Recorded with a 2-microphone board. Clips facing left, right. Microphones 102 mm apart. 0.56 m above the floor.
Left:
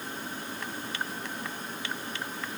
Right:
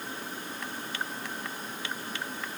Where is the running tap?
No running tap in this recording.